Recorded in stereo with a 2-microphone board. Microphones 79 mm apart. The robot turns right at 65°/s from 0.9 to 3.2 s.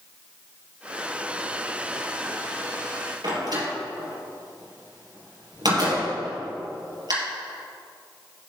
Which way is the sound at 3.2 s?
55° right (ahead or behind).